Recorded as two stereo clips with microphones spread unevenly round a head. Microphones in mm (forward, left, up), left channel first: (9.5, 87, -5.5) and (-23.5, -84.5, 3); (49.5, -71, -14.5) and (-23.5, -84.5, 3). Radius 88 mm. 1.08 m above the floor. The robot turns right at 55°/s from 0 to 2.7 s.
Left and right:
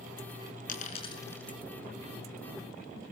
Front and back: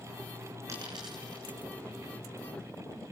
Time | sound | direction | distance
0.7 | a dropped coin | 120° left | 5.5 m